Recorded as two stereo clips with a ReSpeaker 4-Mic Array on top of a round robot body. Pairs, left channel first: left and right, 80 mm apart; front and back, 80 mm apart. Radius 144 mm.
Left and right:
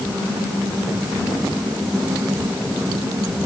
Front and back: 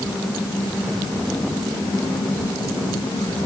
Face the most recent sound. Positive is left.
No sound to turn to.